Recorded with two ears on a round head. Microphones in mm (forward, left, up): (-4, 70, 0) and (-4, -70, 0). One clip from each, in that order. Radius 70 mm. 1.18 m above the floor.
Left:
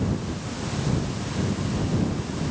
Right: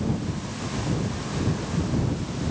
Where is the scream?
I don't hear a scream.